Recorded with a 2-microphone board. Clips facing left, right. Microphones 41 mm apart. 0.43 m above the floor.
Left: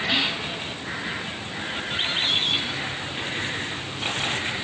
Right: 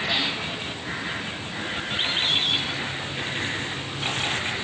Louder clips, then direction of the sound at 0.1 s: Left 3 dB; 80° left.